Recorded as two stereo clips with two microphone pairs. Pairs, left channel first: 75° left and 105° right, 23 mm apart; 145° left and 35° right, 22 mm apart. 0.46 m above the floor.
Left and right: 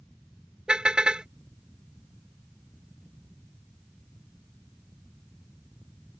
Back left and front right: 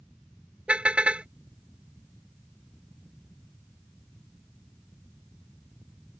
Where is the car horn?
55° right.